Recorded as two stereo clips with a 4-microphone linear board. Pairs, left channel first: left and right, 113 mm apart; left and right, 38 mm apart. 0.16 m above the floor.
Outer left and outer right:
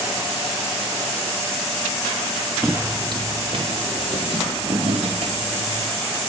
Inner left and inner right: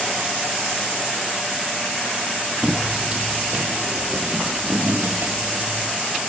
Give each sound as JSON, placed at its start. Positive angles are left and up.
{"t": 2.6, "sound": "footsteps", "side_deg": -20, "distance_m": 0.7}